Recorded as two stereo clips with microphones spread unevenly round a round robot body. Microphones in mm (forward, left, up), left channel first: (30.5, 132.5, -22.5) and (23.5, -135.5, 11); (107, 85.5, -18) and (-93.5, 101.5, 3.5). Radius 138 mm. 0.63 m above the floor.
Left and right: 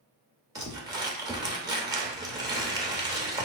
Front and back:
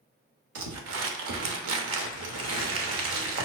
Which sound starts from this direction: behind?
Crumpling, at 0.6 s.